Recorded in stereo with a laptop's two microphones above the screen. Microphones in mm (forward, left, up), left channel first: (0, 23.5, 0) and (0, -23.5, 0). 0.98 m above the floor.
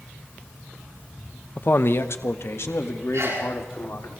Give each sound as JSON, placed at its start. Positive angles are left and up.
{"t": 1.6, "sound": "a man speaking", "side_deg": 45, "distance_m": 0.8}
{"t": 3.1, "sound": "a sneeze", "side_deg": -90, "distance_m": 9.5}